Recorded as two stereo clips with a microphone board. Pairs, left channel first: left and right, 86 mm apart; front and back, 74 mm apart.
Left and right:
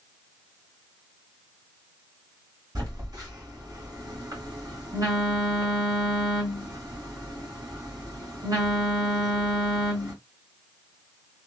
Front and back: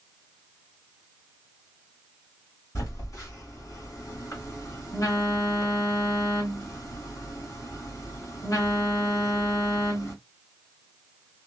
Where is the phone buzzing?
50° right, 1.7 m.